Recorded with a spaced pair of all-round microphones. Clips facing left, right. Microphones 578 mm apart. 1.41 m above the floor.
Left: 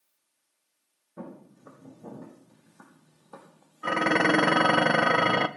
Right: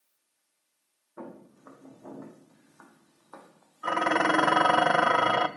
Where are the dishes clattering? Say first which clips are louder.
Left 3 dB; 50° left (ahead or behind), 0.6 m.